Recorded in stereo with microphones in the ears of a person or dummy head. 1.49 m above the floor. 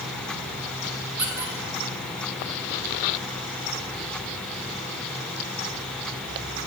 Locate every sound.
1.2 s a squeak: 10° right (ahead or behind), 1.1 m